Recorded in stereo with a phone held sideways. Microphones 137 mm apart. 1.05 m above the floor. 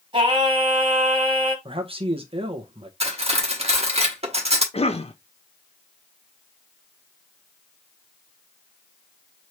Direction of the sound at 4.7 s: 50° left (ahead or behind).